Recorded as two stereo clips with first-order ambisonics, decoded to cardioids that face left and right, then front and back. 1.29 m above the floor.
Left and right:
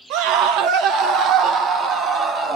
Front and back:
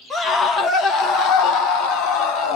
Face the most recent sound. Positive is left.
turn(degrees=-25)